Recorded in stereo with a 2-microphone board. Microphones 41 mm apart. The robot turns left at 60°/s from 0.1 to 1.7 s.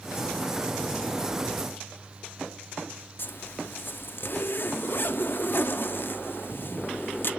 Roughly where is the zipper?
Left.